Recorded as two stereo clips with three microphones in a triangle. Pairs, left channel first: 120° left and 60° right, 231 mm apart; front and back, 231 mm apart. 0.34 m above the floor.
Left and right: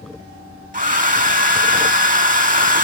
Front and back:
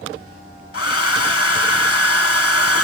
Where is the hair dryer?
5° right, 0.5 m.